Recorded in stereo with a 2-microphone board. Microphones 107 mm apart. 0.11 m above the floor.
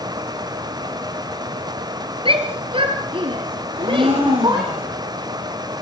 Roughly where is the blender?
Right.